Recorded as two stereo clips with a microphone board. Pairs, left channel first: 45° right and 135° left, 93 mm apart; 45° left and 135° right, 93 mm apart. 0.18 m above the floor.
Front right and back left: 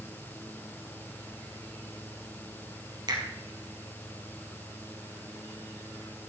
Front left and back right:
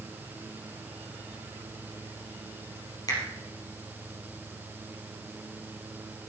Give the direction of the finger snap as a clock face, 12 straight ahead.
9 o'clock.